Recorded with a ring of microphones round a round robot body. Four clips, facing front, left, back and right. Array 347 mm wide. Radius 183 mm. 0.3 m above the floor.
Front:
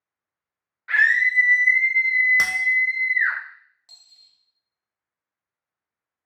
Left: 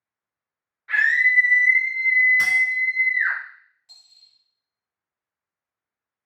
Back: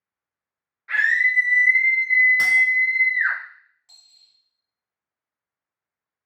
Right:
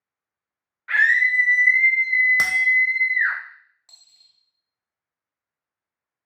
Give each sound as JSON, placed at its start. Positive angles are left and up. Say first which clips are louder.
{"t": 0.9, "sound": "a scream", "louder": "right 1 dB, front 1 dB", "azimuth_deg": -55, "distance_m": 0.9}
{"t": 2.4, "sound": "a bell", "louder": "left 1 dB, back 3 dB", "azimuth_deg": -60, "distance_m": 0.6}
{"t": 3.9, "sound": "a dropped coin", "louder": "left 1 dB, front 2 dB", "azimuth_deg": -75, "distance_m": 1.0}